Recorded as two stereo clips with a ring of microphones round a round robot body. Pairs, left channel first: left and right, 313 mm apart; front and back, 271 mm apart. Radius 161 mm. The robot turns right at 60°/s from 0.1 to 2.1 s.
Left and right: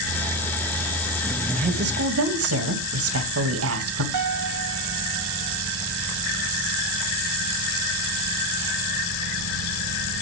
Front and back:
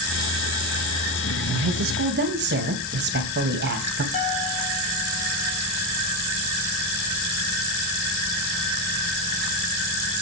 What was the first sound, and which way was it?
A woman speaking, 165° right.